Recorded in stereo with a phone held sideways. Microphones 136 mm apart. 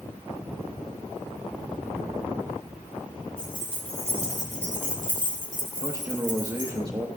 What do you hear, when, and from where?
3.4 s keys jangling: 35° left (ahead or behind), 3 m; by 6.7 s 55° left (ahead or behind), 3 m
5.8 s a man speaking: 30° right (ahead or behind), 0.8 m